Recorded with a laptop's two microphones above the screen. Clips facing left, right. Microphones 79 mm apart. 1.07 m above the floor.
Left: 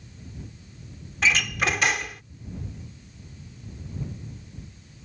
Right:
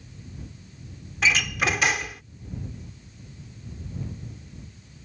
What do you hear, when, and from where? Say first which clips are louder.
1.2 s a door slam: even; centre (ahead or behind)